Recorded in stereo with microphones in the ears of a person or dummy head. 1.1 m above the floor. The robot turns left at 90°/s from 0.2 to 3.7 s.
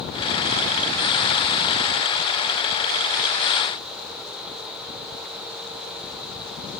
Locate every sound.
Only background noise.